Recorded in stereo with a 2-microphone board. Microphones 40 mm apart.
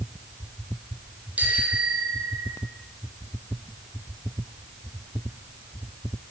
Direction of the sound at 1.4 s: 45° right (ahead or behind).